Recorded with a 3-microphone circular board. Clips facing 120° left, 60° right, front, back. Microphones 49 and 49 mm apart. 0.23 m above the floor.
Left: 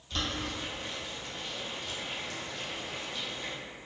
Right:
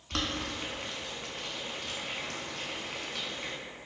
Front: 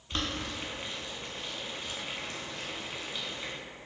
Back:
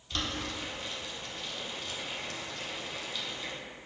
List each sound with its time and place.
0.1 s boiling: 55° right, 0.8 m